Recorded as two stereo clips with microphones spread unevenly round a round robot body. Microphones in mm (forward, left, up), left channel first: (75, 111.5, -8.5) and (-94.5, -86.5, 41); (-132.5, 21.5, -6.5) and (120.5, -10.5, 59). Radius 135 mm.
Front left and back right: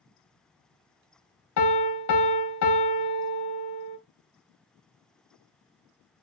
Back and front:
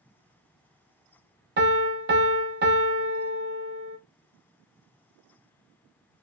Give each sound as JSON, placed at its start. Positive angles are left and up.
{"t": 1.6, "sound": "a piano", "azimuth_deg": 45, "distance_m": 0.6}